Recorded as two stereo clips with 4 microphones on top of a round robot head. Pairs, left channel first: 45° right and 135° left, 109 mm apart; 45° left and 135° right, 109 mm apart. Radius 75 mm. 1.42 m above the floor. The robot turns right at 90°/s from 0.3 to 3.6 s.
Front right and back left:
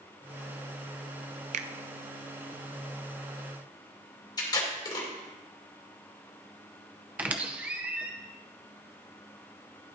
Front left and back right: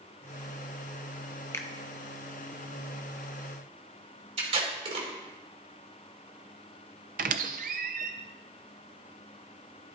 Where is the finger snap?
115° left, 0.6 m; by 1.7 s 130° left, 0.6 m.